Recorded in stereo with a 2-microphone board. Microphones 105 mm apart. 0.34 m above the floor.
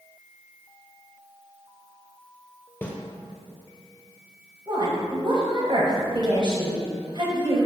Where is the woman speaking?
50° right (ahead or behind), 1.5 m.